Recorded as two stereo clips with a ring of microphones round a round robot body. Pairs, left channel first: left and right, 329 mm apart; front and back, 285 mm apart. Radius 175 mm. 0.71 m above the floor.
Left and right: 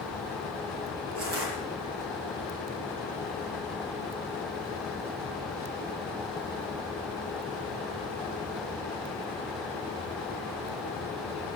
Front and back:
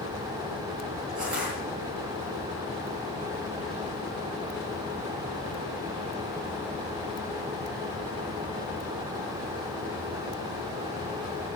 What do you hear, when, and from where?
1.1 s crushing: 140° right, 9 m